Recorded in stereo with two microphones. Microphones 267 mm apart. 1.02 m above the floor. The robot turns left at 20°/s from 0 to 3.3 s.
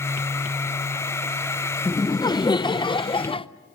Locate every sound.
1.9 s laughter: 15° left (ahead or behind), 0.5 m; by 3.5 s 20° left (ahead or behind), 0.5 m